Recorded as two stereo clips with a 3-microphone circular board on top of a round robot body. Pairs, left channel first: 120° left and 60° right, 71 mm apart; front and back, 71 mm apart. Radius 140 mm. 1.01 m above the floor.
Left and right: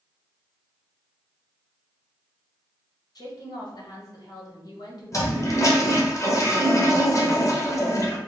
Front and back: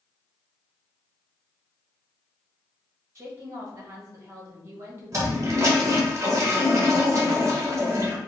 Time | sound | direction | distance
3.1 | a woman speaking | 130° left | 1.5 m
5.1 | a toilet flushing | 145° left | 1.2 m